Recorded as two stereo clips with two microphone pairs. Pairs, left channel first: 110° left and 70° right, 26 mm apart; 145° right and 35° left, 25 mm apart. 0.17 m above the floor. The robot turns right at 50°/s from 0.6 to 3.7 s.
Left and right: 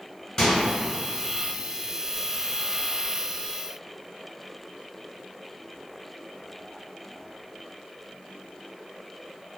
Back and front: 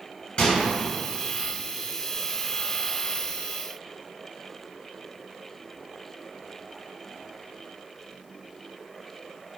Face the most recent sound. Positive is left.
turn(degrees=-30)